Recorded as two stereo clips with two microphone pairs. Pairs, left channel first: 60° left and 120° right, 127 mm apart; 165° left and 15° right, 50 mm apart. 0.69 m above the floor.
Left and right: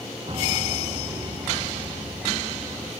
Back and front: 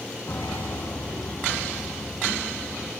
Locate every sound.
0.3 s a piano: 165° right, 5 m